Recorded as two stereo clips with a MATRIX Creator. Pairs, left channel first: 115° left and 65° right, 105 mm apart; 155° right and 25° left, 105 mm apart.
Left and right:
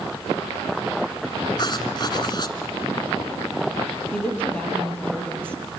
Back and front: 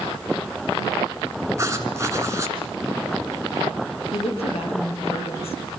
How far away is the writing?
About 2.5 m.